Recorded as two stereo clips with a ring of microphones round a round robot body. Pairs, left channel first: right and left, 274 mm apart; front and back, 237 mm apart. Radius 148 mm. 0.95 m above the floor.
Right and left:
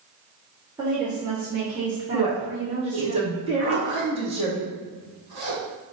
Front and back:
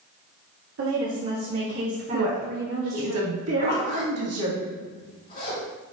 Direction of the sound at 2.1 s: 160° left.